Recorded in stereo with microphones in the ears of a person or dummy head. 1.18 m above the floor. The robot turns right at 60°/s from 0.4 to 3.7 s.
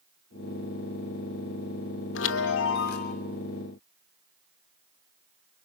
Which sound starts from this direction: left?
A chime, at 2.1 s.